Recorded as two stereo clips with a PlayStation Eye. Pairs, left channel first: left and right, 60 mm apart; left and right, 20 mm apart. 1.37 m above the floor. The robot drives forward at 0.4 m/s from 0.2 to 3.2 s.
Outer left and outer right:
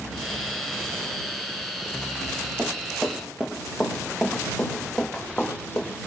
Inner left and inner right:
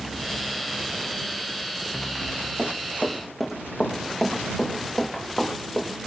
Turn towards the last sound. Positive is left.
turn(degrees=20)  # may be behind; listen again after turning